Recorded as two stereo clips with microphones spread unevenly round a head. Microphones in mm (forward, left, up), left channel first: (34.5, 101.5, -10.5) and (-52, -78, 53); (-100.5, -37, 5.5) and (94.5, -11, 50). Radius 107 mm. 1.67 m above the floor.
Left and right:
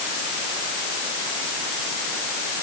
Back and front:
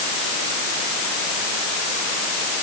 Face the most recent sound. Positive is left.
No sound to turn to.